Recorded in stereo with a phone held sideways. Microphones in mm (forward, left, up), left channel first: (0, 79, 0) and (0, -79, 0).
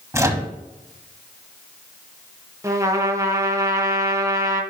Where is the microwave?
15° right (ahead or behind), 1.1 m.